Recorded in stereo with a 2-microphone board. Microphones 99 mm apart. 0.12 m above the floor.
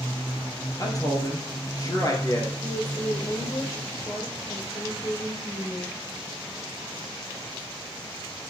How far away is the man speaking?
About 2 m.